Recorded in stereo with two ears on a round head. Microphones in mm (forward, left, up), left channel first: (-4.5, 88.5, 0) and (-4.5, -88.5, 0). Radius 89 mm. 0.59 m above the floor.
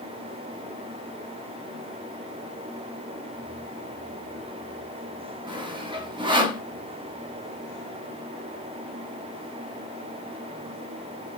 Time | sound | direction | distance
5.5 | sawing | 25° right (ahead or behind) | 0.8 m